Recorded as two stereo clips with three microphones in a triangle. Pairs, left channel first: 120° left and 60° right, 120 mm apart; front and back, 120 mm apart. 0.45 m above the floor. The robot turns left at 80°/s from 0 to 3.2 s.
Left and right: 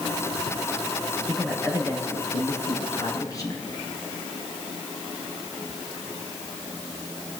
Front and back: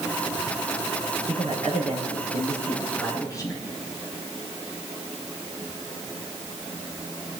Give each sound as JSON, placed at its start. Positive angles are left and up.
{"t": 1.3, "sound": "a man speaking", "azimuth_deg": -145, "distance_m": 6.5}